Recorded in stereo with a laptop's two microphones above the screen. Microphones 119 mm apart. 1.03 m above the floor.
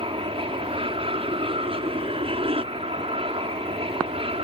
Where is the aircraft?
50° right (ahead or behind); by 4.5 s 55° right (ahead or behind).